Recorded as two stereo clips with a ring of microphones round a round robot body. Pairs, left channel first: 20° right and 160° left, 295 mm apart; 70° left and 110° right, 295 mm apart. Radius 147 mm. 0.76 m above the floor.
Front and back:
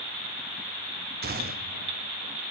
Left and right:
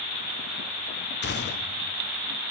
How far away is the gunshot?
About 1.0 m.